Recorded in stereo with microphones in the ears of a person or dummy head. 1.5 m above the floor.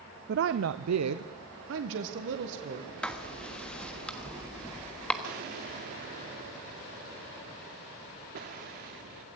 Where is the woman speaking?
50° right (ahead or behind), 0.7 m; by 2.9 s 60° right (ahead or behind), 1.9 m.